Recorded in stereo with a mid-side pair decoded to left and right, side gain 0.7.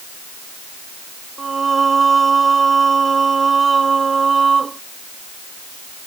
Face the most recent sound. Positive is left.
turn(degrees=-20)